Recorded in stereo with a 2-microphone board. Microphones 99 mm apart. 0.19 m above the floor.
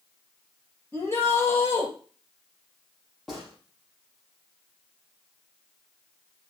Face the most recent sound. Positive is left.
turn(degrees=0)  # may be behind; listen again after turning